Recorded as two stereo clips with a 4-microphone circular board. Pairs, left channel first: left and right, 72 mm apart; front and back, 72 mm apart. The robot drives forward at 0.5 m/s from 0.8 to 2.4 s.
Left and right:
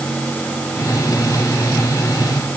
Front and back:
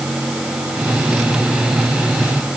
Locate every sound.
Only background noise.